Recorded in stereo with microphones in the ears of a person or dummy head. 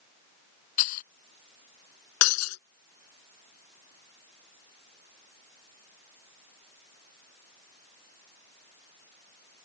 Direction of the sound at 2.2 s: 85° left.